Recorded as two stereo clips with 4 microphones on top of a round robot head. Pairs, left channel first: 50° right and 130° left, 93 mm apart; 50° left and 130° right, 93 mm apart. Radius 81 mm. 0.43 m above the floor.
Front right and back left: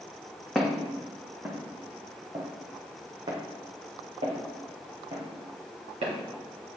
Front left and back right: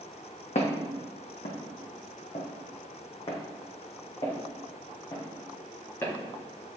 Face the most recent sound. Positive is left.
turn(degrees=120)